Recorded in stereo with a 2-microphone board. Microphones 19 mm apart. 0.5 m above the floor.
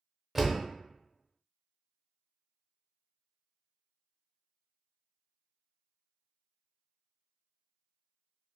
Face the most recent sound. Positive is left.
turn(degrees=-10)  # may be behind; listen again after turning